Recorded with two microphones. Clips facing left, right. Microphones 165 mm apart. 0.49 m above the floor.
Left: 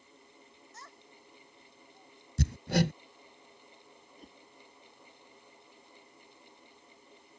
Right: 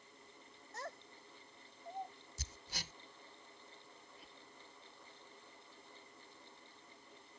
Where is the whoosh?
45° left (ahead or behind).